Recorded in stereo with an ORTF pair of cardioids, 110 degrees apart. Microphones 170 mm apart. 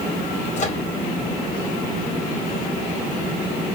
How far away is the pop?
No pop in this recording.